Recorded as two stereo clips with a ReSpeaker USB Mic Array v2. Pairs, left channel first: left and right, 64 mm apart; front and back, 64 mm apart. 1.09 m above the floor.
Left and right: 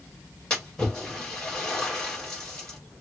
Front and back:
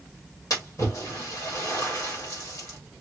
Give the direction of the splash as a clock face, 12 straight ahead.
12 o'clock.